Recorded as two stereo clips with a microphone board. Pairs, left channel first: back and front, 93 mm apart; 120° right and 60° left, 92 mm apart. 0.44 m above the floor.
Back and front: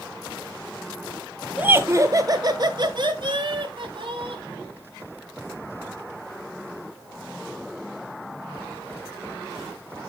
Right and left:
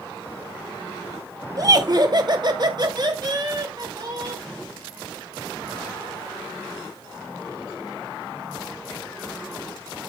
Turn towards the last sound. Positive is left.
turn(degrees=20)